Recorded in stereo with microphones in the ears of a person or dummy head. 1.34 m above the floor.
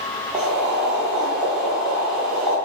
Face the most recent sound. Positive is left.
turn(degrees=-5)  # may be behind; listen again after turning